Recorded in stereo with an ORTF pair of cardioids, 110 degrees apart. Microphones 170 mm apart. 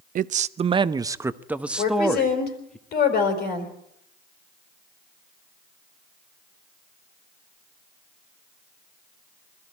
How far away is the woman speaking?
About 5 m.